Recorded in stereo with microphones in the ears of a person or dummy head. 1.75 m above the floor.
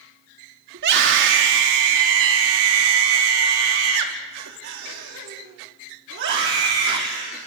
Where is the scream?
65° right (ahead or behind), 4 m; by 7.5 s 50° right (ahead or behind), 5 m.